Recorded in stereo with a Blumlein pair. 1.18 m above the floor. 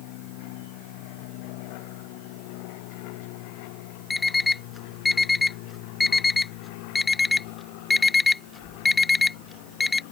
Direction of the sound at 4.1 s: 10° left.